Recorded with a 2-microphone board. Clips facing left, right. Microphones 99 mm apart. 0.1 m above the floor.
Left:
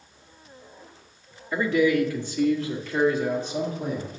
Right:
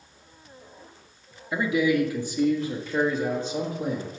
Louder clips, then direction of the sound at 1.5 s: Left 2 dB; 10° right (ahead or behind).